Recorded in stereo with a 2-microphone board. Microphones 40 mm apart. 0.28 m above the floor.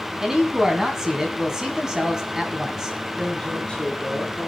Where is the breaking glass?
No breaking glass in this recording.